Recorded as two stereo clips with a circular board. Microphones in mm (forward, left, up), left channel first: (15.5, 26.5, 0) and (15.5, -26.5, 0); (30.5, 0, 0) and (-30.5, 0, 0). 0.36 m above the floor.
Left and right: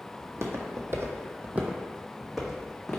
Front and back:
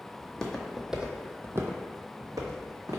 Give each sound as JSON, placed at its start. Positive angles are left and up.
{"t": 0.2, "sound": "footsteps", "azimuth_deg": -70, "distance_m": 0.8}